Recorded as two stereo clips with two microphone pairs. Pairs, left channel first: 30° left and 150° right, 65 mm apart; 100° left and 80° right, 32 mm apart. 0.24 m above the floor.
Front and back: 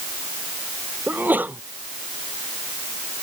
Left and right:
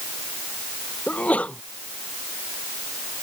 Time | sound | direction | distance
1.1 | a sneeze | 150° left | ?